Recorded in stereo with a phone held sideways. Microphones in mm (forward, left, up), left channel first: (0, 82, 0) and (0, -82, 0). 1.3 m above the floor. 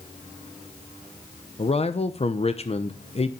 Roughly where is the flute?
I don't hear a flute.